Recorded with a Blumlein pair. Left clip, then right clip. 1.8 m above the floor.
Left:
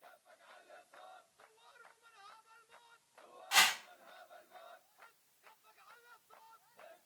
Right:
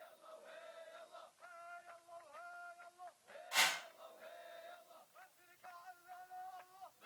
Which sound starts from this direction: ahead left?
A whoosh, at 3.5 s.